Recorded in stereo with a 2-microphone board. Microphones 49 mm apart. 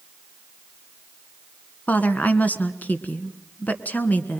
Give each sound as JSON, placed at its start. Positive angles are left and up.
{"t": 1.9, "sound": "a woman speaking", "side_deg": 35, "distance_m": 1.6}